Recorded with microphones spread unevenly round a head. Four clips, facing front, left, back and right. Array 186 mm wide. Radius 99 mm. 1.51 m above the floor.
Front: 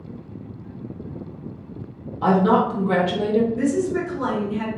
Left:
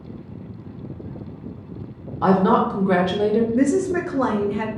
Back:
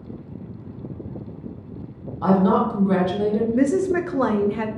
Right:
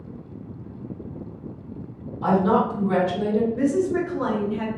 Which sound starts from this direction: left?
A woman speaking, at 2.2 s.